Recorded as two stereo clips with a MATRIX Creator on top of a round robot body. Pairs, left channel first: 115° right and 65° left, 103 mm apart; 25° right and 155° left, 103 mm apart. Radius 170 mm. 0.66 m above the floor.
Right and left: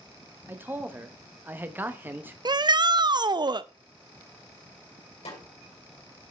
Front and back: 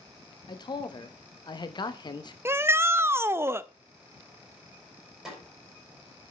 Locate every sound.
0.5 s a man speaking: straight ahead, 1.1 m
2.5 s a shout: 95° left, 0.7 m
5.2 s a snare drum: 115° right, 6 m